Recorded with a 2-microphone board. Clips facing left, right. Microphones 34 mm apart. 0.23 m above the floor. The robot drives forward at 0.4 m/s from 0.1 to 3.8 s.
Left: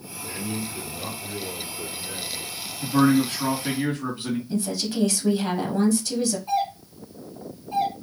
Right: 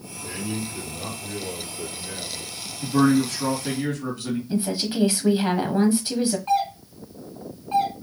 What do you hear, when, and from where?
0.2 s a man speaking: 5° right (ahead or behind), 4.5 m; by 2.5 s 10° right (ahead or behind), 3.5 m
2.8 s a man speaking: 20° left (ahead or behind), 2 m
4.5 s a woman speaking: 25° right (ahead or behind), 1.2 m
6.5 s a doorbell: 55° right (ahead or behind), 3.5 m